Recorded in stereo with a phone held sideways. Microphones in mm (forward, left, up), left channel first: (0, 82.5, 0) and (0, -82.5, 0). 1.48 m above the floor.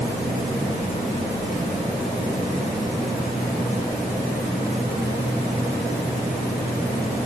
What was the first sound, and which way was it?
Only background noise.